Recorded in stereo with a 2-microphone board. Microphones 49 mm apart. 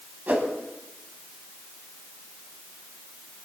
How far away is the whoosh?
About 2 m.